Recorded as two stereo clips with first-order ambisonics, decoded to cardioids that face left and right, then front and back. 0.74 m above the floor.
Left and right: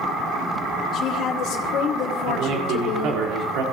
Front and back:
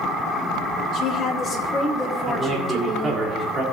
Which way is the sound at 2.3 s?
115° right.